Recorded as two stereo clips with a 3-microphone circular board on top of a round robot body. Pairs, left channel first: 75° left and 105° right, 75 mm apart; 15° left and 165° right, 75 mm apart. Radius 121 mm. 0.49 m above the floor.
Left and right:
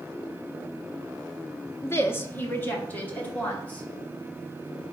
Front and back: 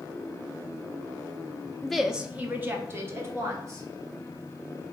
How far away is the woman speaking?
About 0.8 m.